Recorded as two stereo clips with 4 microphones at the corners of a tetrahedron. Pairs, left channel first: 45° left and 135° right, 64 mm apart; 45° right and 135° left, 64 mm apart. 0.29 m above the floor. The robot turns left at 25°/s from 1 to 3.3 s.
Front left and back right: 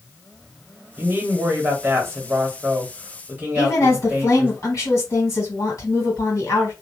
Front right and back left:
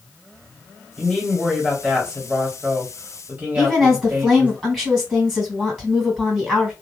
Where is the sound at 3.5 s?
60° left, 2 m.